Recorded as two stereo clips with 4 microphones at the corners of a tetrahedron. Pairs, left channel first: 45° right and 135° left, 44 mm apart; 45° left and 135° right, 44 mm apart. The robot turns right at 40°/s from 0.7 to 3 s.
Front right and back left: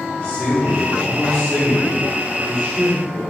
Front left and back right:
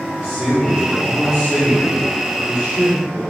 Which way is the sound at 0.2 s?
45° right.